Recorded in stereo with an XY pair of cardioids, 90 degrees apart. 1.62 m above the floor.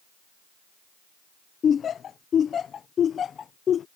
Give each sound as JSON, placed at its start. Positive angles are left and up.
{"t": 1.6, "sound": "laughter", "azimuth_deg": 60}